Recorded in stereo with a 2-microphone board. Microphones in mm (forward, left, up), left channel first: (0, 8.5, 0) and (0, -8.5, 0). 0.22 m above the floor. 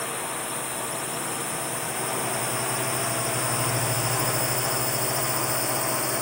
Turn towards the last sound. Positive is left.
turn(degrees=-5)  # may be behind; listen again after turning